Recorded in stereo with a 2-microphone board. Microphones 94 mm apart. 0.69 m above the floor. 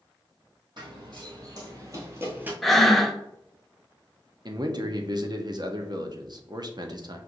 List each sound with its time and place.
0.8 s running footsteps: 55° right (ahead or behind), 1.8 m; by 2.5 s 20° right (ahead or behind), 1.1 m
2.6 s breathing: centre (ahead or behind), 0.5 m
4.5 s a man speaking: 50° right (ahead or behind), 0.7 m